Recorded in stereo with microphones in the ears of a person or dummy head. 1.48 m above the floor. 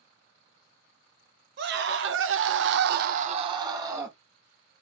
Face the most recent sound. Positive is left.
turn(degrees=-10)  # may be behind; listen again after turning